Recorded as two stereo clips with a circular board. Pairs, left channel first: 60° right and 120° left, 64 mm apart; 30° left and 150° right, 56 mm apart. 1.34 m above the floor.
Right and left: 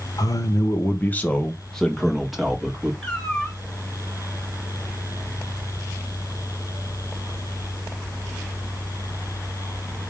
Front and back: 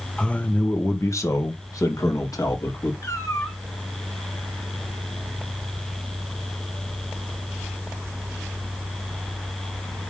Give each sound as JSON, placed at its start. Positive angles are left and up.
{"t": 0.2, "sound": "a man speaking", "azimuth_deg": -45, "distance_m": 1.1}
{"t": 3.0, "sound": "a cat meowing", "azimuth_deg": 20, "distance_m": 2.5}